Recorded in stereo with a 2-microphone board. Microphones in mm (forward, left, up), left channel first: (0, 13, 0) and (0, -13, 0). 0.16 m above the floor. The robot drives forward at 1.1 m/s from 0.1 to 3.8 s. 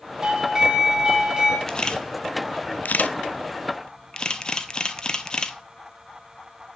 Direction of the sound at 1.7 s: 25° left (ahead or behind).